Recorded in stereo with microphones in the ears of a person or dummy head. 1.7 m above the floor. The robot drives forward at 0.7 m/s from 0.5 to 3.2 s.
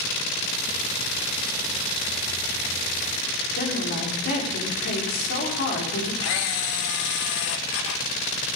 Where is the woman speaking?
55° left (ahead or behind), 4.5 m.